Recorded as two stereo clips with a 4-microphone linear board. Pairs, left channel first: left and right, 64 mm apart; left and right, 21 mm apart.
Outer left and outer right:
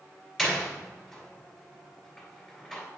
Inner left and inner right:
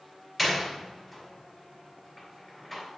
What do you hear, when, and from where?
0.4 s a door slam: 5° left (ahead or behind), 2.5 m